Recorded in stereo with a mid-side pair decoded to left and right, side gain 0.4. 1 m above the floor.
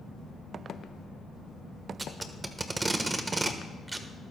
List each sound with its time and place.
2.0 s tape being pulled: 30° right, 1.4 m